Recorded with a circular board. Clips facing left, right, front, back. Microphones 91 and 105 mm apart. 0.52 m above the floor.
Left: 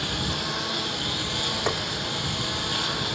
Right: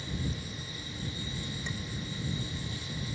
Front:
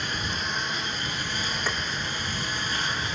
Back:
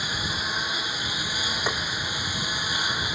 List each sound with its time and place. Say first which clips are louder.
0.0 s a lawn mower: left 8 dB, even; 95° left; by 3.2 s 100° left
1.7 s tapping: left 16 dB, back 3 dB; 110° left